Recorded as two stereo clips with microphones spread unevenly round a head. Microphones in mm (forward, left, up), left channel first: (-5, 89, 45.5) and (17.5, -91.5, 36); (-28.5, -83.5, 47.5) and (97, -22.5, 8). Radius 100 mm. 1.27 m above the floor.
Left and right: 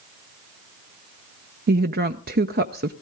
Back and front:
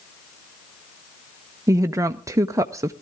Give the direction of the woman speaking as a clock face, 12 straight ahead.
1 o'clock.